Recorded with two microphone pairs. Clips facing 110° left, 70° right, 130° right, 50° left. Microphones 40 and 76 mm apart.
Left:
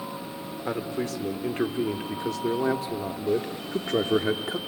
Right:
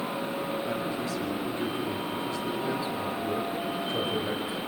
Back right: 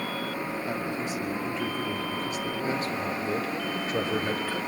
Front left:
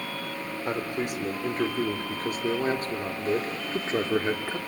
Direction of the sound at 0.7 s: 80° left.